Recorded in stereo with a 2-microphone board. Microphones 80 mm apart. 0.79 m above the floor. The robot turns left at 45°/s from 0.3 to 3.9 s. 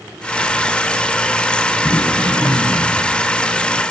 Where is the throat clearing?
145° left, 5.5 m; by 3.0 s 95° left, 5.5 m.